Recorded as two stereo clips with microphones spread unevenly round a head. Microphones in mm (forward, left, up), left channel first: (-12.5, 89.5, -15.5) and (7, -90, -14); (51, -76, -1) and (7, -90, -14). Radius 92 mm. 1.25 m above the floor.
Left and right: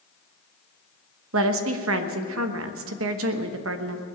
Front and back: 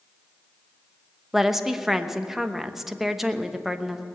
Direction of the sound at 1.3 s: 75° right.